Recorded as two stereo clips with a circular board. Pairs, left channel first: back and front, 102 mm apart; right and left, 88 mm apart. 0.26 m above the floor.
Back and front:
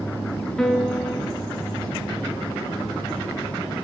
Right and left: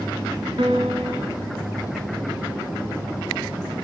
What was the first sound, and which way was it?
A piano, 95° left.